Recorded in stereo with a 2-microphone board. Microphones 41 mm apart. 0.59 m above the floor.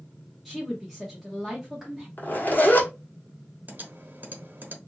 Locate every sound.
0.5 s a woman speaking: centre (ahead or behind), 1.1 m
2.2 s a zipper: 50° left (ahead or behind), 1.4 m
3.7 s typing on a keyboard: 50° right (ahead or behind), 1.0 m